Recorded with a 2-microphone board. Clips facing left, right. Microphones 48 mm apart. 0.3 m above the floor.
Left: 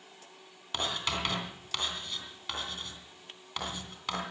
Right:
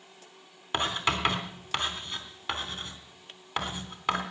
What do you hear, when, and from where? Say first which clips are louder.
0.7 s writing: right 5 dB; 25° right (ahead or behind), 3 m